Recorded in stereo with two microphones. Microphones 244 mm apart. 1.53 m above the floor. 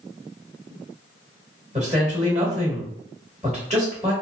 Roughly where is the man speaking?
Right.